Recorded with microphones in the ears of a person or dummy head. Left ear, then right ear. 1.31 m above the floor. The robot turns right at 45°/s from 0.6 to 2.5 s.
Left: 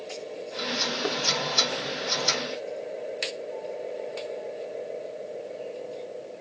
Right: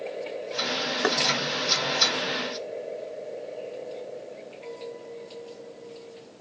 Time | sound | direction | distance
1.0 | knocking | 70° right (ahead or behind) | ?